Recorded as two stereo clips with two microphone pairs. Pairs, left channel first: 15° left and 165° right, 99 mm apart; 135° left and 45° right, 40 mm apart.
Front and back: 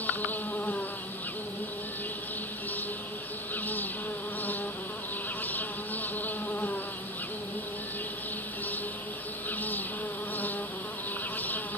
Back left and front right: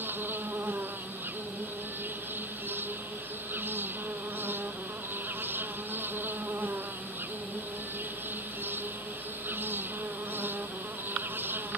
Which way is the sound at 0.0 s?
55° right.